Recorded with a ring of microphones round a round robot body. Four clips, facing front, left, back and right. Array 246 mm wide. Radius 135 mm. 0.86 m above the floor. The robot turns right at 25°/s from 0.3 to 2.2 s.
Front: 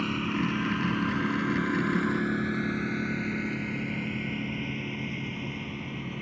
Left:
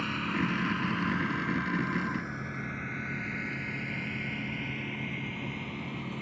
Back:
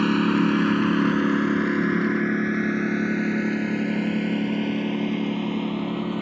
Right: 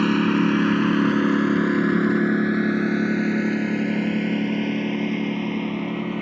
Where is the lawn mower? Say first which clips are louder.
Right 13 dB, back 9 dB; 120° right; by 6.2 s 130° right.